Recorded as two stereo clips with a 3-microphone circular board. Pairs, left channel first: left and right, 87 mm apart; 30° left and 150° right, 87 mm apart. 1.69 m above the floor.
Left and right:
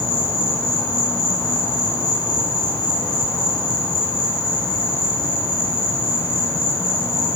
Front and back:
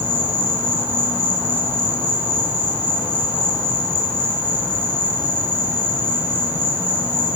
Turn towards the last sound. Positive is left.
turn(degrees=145)